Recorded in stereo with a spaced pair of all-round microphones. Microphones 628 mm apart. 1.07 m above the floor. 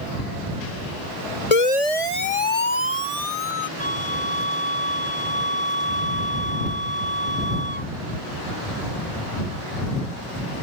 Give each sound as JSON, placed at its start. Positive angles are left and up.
{"t": 1.5, "sound": "a siren", "side_deg": 70}
{"t": 3.8, "sound": "a flute", "side_deg": -50}